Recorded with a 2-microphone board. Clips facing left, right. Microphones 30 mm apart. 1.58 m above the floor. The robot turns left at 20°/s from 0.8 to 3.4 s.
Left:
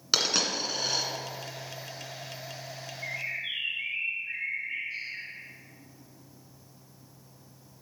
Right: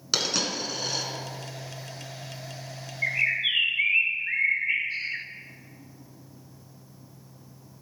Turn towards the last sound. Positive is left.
turn(degrees=-70)  # may be behind; listen again after turning